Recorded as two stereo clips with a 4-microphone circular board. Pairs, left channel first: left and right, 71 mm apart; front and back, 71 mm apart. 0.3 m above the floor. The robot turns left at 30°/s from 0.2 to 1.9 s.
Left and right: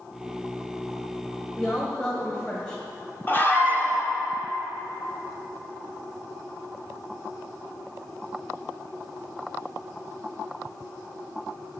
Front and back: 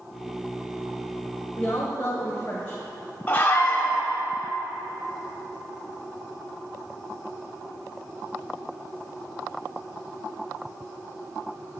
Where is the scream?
55° left, 1.3 m.